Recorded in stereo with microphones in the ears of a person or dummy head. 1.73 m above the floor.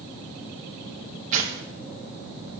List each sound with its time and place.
1.3 s tearing paper: 45° right (ahead or behind), 1.8 m